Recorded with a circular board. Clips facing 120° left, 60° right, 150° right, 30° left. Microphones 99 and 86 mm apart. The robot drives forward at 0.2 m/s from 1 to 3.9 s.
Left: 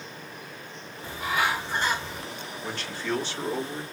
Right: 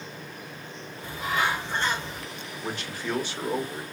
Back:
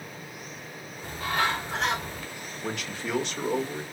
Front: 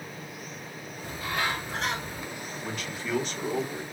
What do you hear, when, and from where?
1.0 s a bird: 155° right, 3 m; by 2.2 s 160° right, 3 m
2.6 s a man speaking: 135° right, 1.4 m; by 3.8 s 140° right, 1.6 m